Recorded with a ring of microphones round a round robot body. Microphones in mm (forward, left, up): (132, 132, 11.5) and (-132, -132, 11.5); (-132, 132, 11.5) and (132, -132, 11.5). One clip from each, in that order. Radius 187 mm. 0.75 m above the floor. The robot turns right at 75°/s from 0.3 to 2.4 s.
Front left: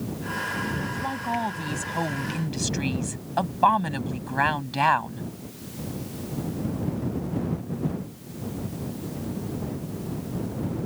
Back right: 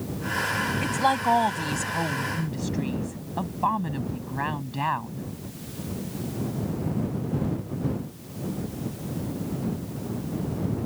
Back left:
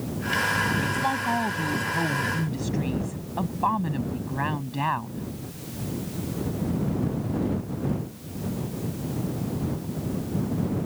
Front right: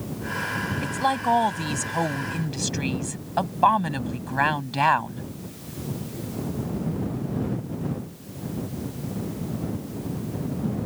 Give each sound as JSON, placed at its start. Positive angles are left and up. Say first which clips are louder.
{"t": 0.8, "sound": "a woman speaking", "louder": "back right 7 dB, front right 2 dB", "azimuth_deg": -125}